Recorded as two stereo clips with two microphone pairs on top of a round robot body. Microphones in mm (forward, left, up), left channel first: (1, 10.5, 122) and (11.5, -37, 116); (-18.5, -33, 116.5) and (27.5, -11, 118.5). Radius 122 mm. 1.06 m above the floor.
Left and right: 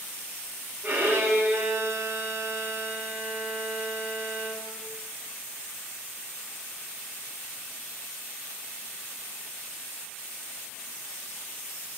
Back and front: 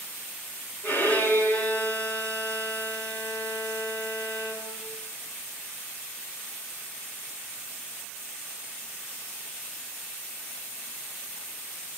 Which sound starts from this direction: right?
A violin, at 0.8 s.